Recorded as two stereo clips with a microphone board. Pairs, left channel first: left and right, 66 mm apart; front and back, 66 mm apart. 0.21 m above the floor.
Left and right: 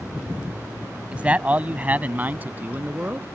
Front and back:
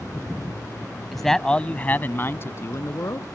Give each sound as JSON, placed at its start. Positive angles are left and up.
{"t": 1.1, "sound": "a man speaking", "azimuth_deg": -85}